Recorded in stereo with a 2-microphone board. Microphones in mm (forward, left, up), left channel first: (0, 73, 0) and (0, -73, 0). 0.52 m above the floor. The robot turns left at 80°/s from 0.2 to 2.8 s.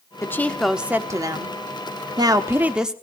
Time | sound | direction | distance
0.2 | a woman speaking | 35° left | 1.0 m